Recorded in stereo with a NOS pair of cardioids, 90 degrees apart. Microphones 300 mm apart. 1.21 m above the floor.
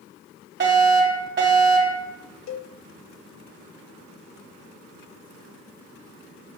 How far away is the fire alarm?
About 5 m.